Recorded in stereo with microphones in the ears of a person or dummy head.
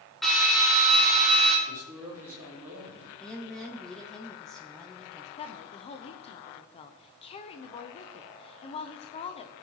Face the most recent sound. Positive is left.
turn(degrees=30)  # may be behind; listen again after turning